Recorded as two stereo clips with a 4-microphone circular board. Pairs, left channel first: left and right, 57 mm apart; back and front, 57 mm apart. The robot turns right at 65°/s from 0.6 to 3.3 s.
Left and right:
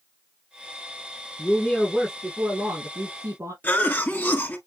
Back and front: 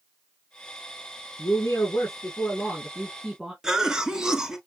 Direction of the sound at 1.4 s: 150° left.